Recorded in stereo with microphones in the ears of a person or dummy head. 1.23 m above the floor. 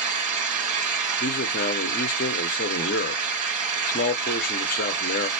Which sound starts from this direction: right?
An engine running, at 0.0 s.